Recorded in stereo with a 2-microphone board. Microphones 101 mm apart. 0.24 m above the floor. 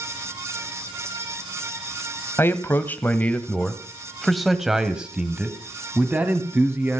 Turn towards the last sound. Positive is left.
turn(degrees=-20)  # may be behind; listen again after turning